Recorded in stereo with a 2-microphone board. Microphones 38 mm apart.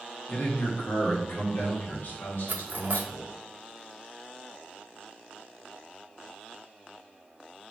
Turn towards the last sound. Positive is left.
turn(degrees=-55)  # may be behind; listen again after turning